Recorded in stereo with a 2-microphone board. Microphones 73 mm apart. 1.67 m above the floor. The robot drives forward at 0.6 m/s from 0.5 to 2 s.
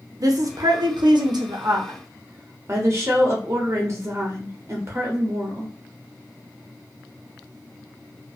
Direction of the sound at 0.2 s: 55° right (ahead or behind).